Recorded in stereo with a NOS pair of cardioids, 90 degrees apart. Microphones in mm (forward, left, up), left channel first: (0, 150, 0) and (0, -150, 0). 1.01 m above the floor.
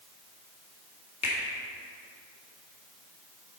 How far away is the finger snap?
About 2 m.